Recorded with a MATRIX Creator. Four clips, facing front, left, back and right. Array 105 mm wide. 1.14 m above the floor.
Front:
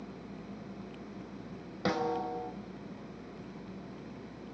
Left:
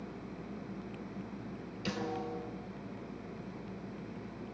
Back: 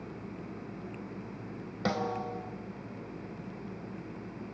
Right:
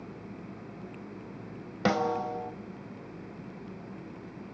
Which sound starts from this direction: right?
A snare drum, at 1.9 s.